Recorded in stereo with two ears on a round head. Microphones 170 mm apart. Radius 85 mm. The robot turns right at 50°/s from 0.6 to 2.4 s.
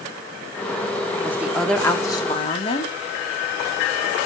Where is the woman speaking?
20° right, 1.2 m; by 2.9 s 40° left, 1.2 m.